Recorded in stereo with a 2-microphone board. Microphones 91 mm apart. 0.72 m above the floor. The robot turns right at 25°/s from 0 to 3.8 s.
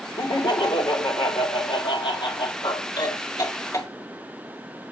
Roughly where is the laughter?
Ahead left.